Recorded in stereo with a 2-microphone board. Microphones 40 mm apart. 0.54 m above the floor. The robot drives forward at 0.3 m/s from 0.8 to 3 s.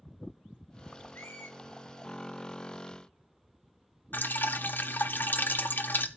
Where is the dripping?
55° left (ahead or behind), 0.7 m.